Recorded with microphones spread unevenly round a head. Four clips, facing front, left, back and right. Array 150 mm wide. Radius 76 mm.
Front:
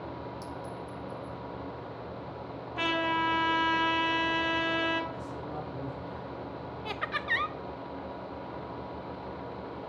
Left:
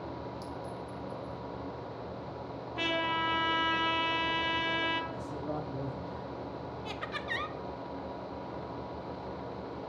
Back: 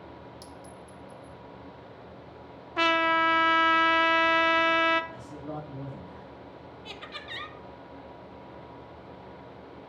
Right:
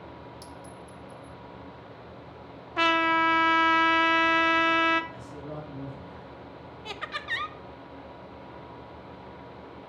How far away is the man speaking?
About 1.8 m.